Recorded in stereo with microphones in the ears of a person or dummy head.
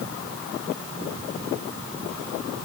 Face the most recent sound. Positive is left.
No sound to turn to.